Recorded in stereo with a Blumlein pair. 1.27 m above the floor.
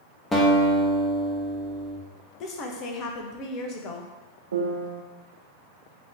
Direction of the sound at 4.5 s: 65° right.